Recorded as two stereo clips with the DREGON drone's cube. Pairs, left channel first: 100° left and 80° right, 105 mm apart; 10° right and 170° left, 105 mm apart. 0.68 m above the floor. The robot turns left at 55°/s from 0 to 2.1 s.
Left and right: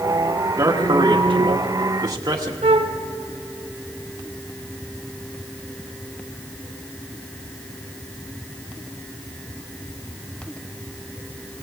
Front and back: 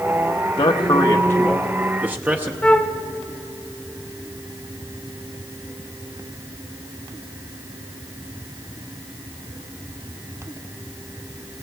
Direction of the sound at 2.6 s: 90° right.